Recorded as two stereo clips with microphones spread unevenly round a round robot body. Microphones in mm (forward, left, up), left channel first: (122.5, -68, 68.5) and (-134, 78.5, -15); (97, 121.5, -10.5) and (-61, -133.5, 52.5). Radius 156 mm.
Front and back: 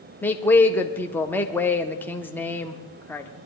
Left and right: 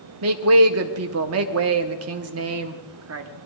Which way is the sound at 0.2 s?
135° right.